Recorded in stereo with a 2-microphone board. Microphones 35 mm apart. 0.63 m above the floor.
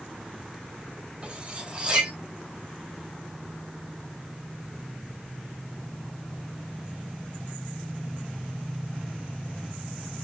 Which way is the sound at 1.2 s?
30° right (ahead or behind).